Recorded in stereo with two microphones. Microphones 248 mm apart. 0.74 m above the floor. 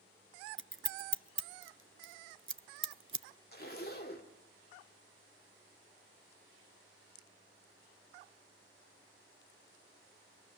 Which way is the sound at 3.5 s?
40° left (ahead or behind).